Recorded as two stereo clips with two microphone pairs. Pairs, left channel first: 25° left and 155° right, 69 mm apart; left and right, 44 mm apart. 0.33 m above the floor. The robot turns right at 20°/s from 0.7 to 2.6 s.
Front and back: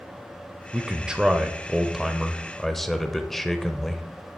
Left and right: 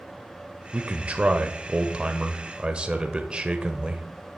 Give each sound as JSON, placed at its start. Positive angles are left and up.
{"t": 0.7, "sound": "a man speaking", "azimuth_deg": -85, "distance_m": 1.0}